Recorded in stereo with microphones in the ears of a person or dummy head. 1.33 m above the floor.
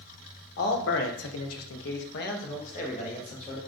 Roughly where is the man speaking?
Left.